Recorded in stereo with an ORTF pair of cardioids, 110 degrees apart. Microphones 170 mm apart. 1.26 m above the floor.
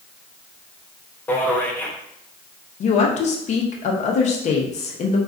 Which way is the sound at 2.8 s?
45° left.